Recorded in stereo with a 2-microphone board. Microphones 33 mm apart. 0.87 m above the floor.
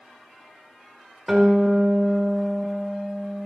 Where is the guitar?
10° right (ahead or behind), 1.8 m.